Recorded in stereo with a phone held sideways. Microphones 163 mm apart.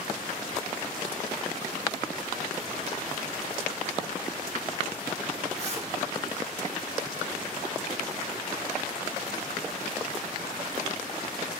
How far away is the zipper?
About 1.5 m.